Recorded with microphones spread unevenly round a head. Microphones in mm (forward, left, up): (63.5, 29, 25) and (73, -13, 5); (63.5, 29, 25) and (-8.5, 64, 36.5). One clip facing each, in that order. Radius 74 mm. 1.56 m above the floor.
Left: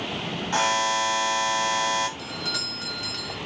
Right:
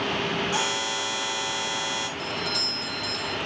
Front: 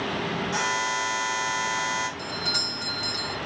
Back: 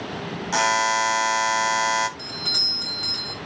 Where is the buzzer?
170° left, 0.7 m.